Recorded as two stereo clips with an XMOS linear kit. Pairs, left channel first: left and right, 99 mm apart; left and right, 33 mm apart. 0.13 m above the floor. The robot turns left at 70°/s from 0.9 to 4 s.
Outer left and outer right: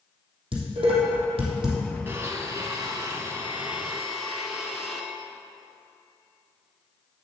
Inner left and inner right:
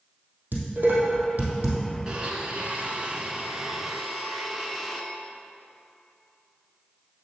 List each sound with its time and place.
0.5 s dishes clattering: 65° right (ahead or behind), 2.5 m; by 1.8 s 45° right (ahead or behind), 2.5 m
2.1 s a blender: 40° right, 1.3 m; by 5.0 s 175° right, 1.3 m